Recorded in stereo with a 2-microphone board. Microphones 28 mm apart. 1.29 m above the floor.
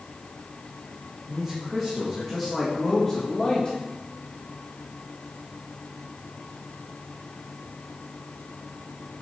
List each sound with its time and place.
1.3 s a man speaking: 15° right (ahead or behind), 2.0 m; by 3.8 s 30° left (ahead or behind), 1.9 m